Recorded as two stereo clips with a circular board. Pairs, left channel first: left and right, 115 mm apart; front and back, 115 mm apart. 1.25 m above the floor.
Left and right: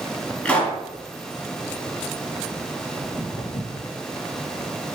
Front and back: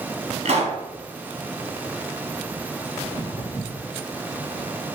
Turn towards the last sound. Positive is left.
turn(degrees=60)